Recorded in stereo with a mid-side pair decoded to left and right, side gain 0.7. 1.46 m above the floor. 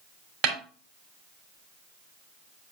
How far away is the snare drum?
About 3 m.